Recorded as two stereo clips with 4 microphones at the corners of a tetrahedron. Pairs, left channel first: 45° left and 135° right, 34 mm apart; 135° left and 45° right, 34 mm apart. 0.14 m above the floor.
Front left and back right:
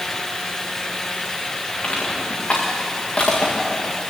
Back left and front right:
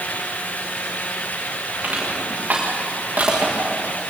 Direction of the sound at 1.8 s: 5° right.